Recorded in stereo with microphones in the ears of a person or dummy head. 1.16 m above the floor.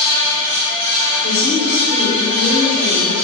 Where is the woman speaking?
70° left (ahead or behind), 1.7 m.